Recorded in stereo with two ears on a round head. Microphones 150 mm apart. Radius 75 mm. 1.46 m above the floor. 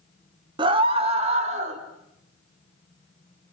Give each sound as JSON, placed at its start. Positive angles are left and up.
{"t": 0.6, "sound": "a scream", "side_deg": -25, "distance_m": 1.7}